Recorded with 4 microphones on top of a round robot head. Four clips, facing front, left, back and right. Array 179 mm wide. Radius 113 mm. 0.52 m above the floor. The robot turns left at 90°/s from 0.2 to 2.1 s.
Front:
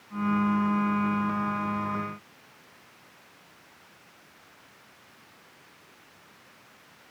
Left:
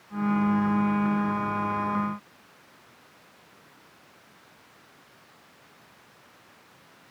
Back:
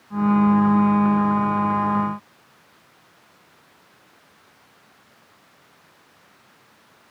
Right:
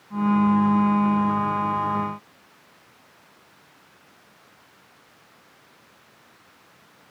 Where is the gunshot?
No gunshot in this recording.